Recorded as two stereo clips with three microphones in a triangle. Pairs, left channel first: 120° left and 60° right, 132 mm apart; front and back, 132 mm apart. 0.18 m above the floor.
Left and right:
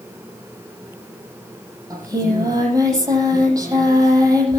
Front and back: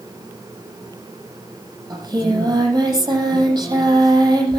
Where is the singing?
120° right, 7.5 m.